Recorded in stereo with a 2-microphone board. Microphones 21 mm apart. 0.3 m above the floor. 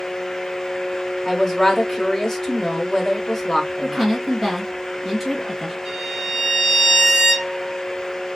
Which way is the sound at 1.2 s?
20° left (ahead or behind).